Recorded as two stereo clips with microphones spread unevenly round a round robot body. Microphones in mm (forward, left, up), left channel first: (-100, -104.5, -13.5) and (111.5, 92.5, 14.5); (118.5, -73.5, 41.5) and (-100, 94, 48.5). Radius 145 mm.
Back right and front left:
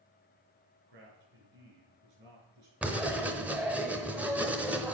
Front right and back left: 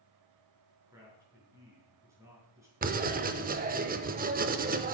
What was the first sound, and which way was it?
A man speaking, 60° left.